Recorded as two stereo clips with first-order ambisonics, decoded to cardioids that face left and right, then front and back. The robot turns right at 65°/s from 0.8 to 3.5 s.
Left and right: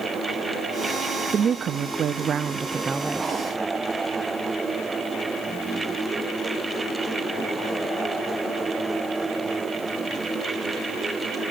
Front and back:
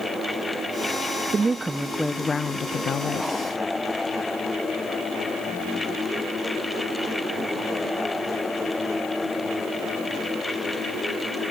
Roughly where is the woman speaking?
Behind right.